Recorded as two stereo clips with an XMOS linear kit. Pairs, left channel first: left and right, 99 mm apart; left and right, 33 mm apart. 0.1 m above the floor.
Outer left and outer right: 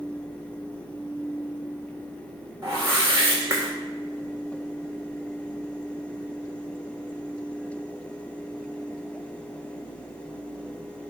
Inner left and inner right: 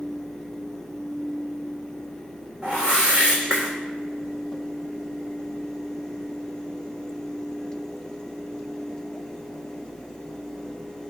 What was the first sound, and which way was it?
A whoosh, 25° right (ahead or behind).